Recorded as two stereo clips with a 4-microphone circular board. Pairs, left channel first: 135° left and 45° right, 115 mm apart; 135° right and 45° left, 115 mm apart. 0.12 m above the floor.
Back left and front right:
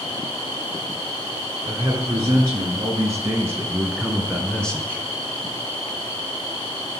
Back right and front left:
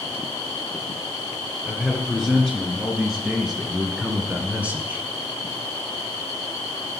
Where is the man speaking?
55° right, 1.8 m; by 5.1 s 95° left, 1.3 m.